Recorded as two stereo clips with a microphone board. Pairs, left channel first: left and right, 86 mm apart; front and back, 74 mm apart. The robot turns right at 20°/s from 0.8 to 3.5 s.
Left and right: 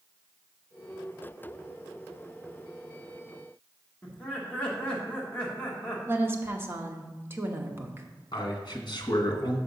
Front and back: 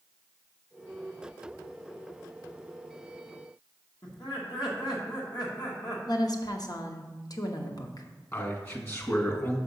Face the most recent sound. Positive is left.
turn(degrees=55)